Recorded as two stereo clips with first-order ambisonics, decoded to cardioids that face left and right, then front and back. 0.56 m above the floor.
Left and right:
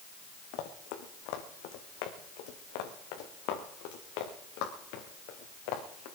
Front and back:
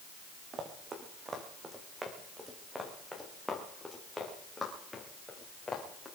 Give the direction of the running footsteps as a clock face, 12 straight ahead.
8 o'clock.